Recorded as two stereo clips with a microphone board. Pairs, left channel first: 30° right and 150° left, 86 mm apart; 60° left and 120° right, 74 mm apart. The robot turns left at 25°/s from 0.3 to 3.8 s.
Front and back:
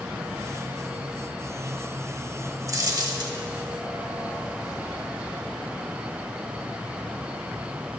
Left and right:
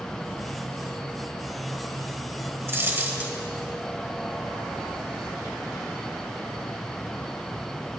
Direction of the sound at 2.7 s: 170° right.